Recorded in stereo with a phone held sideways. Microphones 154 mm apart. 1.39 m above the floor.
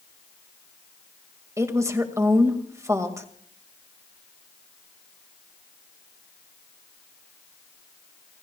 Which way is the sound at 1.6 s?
20° right (ahead or behind).